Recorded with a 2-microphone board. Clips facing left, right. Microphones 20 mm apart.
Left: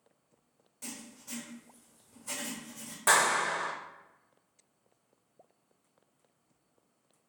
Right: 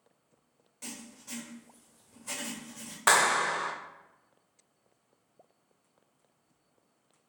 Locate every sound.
0.8 s writing: 15° right (ahead or behind), 1.2 m
3.1 s a clap: 40° right (ahead or behind), 0.8 m